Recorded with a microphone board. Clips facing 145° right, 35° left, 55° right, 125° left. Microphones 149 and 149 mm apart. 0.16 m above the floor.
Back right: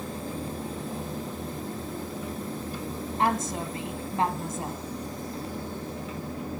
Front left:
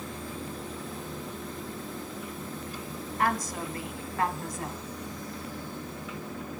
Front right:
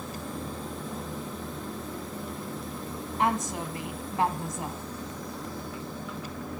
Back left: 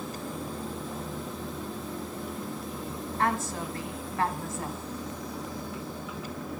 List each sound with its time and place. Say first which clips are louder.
3.2 s a woman speaking: back right 2 dB, front right 2 dB; 110° right, 1.7 m